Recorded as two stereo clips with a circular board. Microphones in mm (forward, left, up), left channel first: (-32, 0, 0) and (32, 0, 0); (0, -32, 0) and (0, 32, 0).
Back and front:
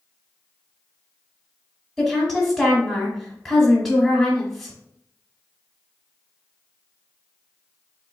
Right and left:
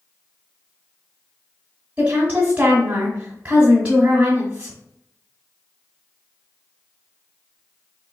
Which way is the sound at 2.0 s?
95° left.